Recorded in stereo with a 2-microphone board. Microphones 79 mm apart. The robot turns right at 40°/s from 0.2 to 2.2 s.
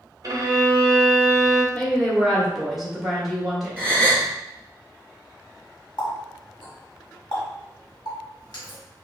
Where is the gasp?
15° left (ahead or behind), 1.4 m.